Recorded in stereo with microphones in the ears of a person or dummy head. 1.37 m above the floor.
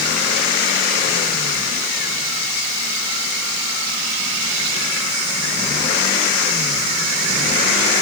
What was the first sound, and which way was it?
Only background noise.